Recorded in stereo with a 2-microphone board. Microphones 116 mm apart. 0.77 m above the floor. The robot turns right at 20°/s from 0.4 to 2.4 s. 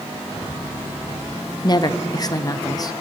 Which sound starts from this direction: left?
A woman speaking, at 1.6 s.